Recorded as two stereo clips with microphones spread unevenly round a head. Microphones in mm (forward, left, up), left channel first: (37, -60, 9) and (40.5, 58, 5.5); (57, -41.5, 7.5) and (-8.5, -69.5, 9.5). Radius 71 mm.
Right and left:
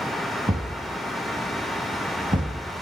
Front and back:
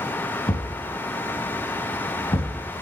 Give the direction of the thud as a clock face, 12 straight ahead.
10 o'clock.